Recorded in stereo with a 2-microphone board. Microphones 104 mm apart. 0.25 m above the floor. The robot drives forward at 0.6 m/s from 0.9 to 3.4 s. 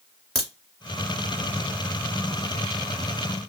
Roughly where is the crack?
Centre.